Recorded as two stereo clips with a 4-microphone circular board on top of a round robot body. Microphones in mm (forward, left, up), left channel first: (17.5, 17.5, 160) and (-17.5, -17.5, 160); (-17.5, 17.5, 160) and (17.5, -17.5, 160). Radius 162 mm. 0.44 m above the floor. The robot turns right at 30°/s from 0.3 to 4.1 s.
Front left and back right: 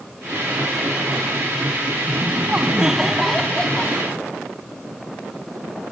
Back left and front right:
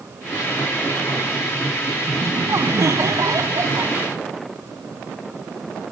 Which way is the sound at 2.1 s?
80° right.